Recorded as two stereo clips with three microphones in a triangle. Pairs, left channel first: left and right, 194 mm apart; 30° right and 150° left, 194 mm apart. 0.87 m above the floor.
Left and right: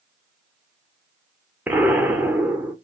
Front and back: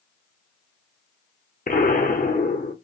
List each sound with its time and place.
1.7 s an explosion: 10° right, 0.7 m